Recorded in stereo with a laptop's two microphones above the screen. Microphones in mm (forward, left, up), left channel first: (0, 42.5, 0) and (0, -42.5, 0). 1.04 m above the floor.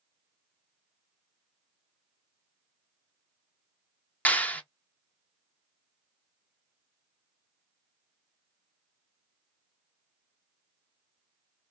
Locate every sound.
4.2 s a clap: 20° left (ahead or behind), 0.7 m